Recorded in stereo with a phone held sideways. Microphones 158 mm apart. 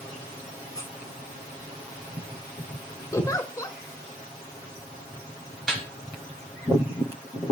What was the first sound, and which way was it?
A squeak, 20° left (ahead or behind).